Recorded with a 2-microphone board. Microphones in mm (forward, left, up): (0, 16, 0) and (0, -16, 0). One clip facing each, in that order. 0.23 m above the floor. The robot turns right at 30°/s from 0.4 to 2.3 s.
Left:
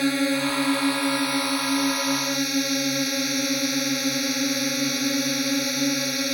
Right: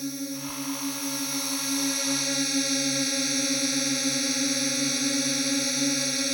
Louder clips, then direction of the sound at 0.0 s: Left 11 dB; 105° left.